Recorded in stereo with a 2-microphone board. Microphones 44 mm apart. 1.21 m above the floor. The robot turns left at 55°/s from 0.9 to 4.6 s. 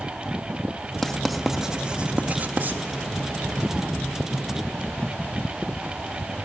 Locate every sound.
1.0 s writing: 10° left (ahead or behind), 0.7 m; by 2.8 s 40° right (ahead or behind), 0.7 m